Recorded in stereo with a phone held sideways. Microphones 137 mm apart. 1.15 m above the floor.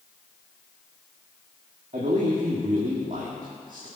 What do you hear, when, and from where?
1.9 s a man speaking: 65° right (ahead or behind), 2 m